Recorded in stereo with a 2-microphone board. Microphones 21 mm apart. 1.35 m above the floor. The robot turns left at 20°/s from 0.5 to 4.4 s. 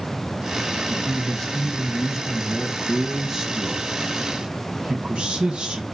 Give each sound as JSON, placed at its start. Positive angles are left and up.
{"t": 0.9, "sound": "a man speaking", "azimuth_deg": 30, "distance_m": 0.9}